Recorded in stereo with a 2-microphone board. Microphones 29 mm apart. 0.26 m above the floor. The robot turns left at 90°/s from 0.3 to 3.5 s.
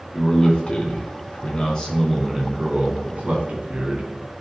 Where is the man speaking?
165° left, 2.5 m; by 4.1 s 120° right, 2.5 m.